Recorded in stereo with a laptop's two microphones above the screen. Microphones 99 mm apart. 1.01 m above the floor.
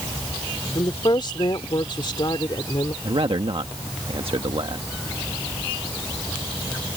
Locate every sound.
0.8 s a woman speaking: 50° left (ahead or behind)
3.0 s a man speaking: 60° right (ahead or behind)